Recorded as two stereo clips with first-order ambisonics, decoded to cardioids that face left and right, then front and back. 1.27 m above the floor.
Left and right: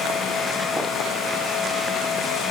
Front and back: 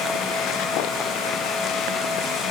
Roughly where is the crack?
No crack in this recording.